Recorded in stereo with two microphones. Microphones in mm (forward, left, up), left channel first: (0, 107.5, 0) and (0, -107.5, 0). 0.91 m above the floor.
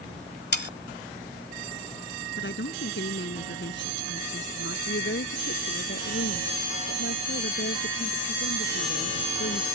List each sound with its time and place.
0.5 s sawing: 55° left (ahead or behind)
2.4 s a woman speaking: 60° left (ahead or behind)
4.9 s a woman speaking: 65° left (ahead or behind)